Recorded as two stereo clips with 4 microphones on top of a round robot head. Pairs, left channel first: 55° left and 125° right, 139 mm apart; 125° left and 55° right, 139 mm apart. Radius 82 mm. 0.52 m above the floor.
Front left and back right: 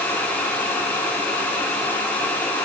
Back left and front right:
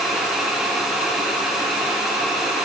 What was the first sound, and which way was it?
Only background noise.